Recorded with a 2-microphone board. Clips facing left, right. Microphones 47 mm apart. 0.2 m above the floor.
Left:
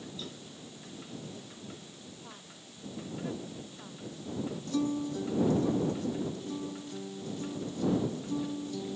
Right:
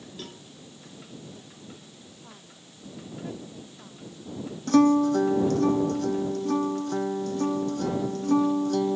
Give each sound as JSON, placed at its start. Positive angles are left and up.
{"t": 0.2, "sound": "a cowbell", "side_deg": -60}
{"t": 2.2, "sound": "a woman speaking", "side_deg": 5}
{"t": 4.7, "sound": "a guitar", "side_deg": -80}